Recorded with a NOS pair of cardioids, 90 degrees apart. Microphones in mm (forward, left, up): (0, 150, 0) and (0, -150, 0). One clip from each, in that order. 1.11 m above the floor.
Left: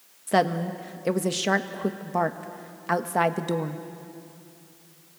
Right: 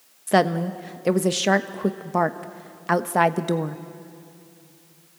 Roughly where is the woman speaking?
Ahead.